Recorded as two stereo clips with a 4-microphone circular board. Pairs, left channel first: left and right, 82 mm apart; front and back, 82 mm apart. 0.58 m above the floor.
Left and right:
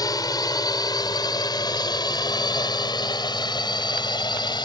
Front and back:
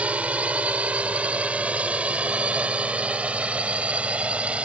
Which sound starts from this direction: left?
A drone, at 0.0 s.